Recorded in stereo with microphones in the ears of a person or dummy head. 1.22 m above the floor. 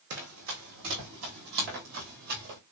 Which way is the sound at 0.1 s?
55° right (ahead or behind).